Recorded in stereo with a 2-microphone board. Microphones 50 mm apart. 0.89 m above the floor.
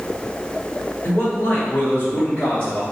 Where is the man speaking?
60° left (ahead or behind), 1.9 m; by 2.8 s 40° left (ahead or behind), 1.1 m.